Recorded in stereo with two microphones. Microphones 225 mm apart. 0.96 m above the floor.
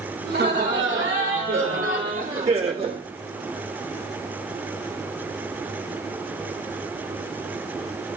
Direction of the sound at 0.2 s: 40° right (ahead or behind).